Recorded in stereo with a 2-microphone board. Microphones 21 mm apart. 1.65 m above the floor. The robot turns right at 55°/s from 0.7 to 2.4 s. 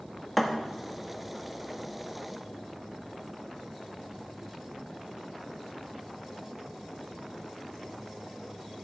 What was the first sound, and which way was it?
A thud, 5° left (ahead or behind).